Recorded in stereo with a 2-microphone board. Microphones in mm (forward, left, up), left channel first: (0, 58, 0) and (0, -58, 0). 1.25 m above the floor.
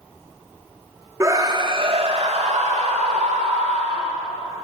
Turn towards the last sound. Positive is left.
turn(degrees=-85)